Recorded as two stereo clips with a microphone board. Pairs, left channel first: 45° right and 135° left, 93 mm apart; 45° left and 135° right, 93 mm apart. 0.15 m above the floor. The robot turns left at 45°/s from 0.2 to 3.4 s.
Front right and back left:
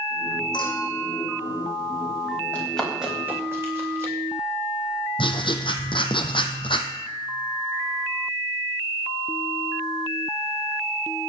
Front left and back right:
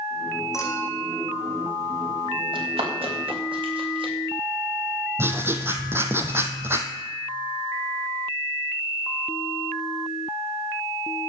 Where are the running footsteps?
115° right, 8.5 m; by 4.1 s 165° right, 8 m.